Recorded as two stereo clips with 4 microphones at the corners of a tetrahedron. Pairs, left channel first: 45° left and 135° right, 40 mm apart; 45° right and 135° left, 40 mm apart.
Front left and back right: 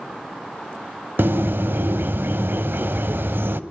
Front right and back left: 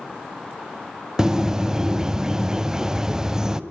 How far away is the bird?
About 0.7 m.